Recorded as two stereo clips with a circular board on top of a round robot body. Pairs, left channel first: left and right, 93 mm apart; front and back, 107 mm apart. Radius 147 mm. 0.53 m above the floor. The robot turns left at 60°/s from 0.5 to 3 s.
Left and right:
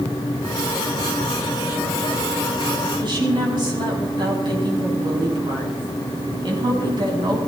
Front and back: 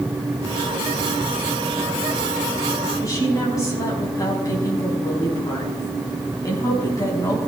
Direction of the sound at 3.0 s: 55° right.